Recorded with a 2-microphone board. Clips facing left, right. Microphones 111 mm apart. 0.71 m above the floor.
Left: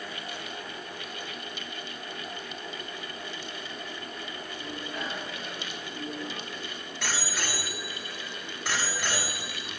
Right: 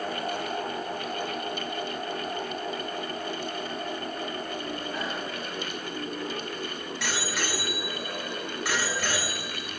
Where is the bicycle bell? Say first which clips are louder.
Right 4 dB; 65° right (ahead or behind), 5.5 m.